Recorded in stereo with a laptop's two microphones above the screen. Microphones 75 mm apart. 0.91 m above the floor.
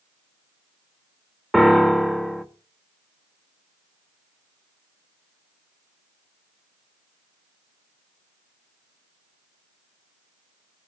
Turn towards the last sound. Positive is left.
turn(degrees=0)  # may be behind; listen again after turning